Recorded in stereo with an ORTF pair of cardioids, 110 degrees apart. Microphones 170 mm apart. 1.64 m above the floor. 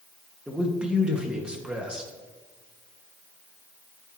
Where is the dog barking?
No dog barking in this recording.